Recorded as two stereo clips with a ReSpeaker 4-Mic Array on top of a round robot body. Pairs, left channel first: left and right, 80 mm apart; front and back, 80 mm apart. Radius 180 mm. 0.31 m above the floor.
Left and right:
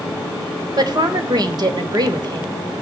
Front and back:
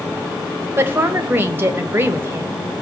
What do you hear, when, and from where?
0.8 s a woman speaking: 120° right, 2.5 m